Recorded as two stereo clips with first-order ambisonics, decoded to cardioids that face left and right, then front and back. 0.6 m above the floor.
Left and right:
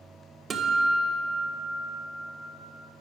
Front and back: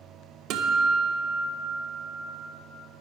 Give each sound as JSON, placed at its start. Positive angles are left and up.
{"t": 0.5, "sound": "a guitar", "azimuth_deg": -155, "distance_m": 1.2}